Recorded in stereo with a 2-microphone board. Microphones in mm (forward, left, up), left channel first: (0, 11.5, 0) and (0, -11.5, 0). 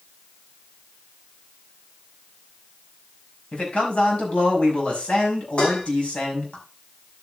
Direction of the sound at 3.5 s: 45° left (ahead or behind).